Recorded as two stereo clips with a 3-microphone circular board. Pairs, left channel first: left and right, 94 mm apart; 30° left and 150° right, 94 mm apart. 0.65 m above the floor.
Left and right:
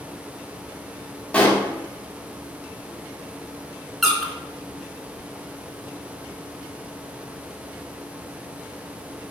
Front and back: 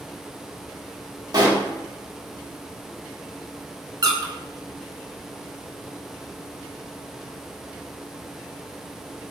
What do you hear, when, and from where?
1.3 s a pop: 165° left, 0.9 m
4.0 s a squeak: straight behind, 0.8 m